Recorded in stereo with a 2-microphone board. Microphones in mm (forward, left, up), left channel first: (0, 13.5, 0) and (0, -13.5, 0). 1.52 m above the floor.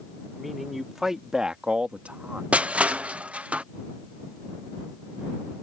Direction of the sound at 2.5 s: 55° right (ahead or behind).